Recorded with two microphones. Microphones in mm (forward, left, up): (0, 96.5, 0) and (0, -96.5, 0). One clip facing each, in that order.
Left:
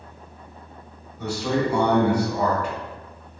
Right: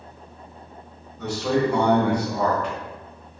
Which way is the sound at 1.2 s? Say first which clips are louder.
Right 1 dB; 10° left (ahead or behind).